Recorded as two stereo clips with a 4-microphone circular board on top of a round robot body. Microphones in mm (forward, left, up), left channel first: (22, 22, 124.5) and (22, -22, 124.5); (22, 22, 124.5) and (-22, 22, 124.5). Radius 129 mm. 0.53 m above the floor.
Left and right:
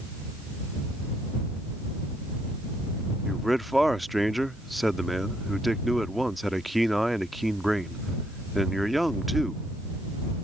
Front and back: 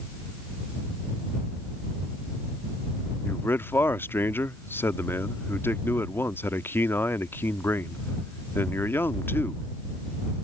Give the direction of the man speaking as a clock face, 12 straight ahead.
12 o'clock.